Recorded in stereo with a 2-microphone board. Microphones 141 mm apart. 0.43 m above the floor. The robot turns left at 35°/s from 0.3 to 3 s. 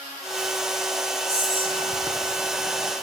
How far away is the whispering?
About 5.5 m.